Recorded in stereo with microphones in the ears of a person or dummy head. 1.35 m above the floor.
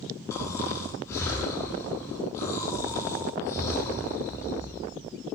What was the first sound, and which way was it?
Snoring, 15° left (ahead or behind).